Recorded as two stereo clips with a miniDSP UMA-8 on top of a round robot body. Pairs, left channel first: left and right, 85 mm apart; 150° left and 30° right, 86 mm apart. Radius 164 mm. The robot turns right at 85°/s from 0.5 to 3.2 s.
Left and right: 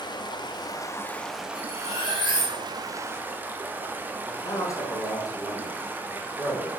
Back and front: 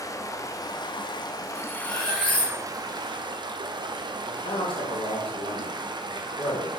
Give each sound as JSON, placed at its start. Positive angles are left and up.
{"t": 0.0, "sound": "running water", "azimuth_deg": 105, "distance_m": 1.0}
{"t": 1.6, "sound": "cutlery clinking", "azimuth_deg": 65, "distance_m": 3.0}
{"t": 4.2, "sound": "a man speaking", "azimuth_deg": 140, "distance_m": 2.0}